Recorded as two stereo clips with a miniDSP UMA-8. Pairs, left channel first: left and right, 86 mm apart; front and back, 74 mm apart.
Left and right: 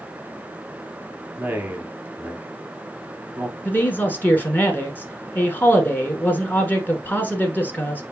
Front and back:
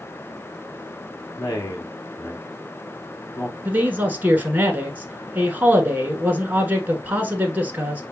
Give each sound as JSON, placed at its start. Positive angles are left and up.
{"t": 1.4, "sound": "a man speaking", "azimuth_deg": -20, "distance_m": 2.0}
{"t": 3.6, "sound": "a man speaking", "azimuth_deg": 135, "distance_m": 1.2}